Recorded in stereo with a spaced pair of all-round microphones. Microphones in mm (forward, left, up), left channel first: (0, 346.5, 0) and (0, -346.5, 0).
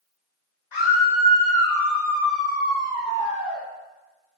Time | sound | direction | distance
0.7 | a scream | 75° left (ahead or behind) | 1.3 m